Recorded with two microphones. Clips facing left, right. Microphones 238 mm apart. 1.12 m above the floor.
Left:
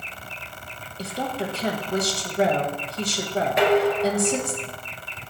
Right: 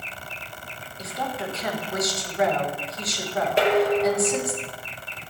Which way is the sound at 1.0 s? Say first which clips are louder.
Left 3 dB; 30° left (ahead or behind).